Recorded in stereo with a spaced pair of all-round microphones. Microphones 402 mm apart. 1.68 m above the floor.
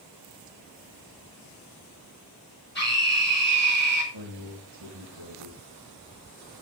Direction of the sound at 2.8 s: 25° left (ahead or behind).